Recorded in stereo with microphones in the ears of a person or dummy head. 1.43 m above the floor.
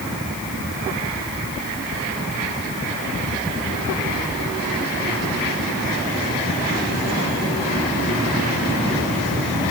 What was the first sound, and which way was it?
Only background noise.